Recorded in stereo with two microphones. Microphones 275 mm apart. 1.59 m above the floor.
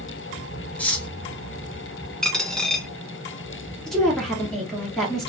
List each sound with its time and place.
0.8 s cutlery clinking: 5° left (ahead or behind), 0.9 m
2.2 s a dropped coin: centre (ahead or behind), 0.9 m
3.9 s a woman speaking: centre (ahead or behind), 1.3 m